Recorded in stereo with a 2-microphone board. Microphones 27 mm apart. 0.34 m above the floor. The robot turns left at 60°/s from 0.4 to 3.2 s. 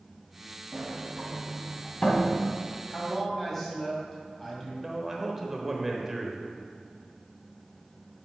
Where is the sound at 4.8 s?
10° right (ahead or behind), 0.9 m.